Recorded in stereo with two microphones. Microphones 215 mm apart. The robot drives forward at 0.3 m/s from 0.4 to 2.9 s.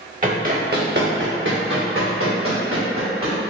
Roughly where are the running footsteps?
Right.